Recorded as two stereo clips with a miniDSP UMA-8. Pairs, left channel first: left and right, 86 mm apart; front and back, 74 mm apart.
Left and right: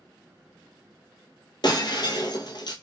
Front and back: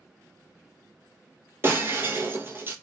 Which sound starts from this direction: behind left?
Breaking glass, at 1.6 s.